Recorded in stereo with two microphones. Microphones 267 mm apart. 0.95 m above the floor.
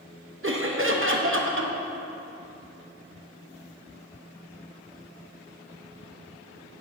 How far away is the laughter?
About 1.0 m.